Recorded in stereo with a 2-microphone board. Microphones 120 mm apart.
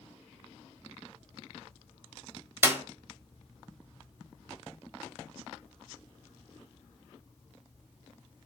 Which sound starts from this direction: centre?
A clap, at 2.6 s.